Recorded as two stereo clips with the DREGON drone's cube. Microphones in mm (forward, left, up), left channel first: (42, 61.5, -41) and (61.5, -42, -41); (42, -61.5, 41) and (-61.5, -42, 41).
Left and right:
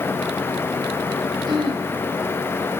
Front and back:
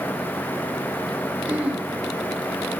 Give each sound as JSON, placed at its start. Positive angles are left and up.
{"t": 1.5, "sound": "throat clearing", "azimuth_deg": -120, "distance_m": 1.2}